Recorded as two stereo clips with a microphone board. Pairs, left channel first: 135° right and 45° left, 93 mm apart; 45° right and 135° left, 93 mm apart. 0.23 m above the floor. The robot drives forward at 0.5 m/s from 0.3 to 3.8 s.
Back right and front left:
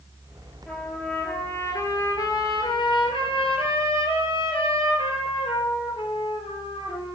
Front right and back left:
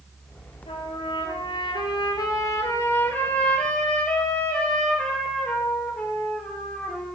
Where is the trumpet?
55° right, 1.3 m; by 7.2 s 125° right, 1.3 m.